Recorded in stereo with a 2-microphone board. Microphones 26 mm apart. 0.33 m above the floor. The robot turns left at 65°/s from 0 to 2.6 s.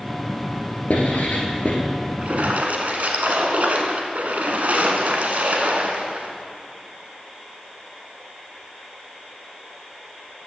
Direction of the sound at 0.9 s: 65° left (ahead or behind).